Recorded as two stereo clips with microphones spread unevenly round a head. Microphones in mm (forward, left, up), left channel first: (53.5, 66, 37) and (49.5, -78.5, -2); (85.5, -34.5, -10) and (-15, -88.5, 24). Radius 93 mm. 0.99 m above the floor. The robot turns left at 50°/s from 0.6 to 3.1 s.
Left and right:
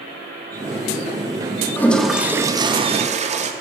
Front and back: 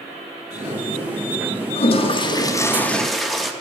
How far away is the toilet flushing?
About 1.0 m.